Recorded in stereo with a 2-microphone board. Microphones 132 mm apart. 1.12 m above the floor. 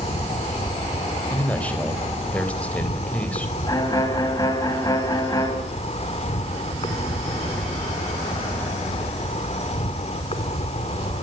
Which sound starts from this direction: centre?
A man speaking, at 1.3 s.